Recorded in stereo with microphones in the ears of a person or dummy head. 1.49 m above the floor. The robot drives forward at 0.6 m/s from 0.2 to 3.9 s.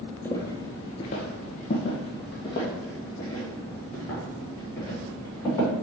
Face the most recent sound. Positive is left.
turn(degrees=15)  # may be behind; listen again after turning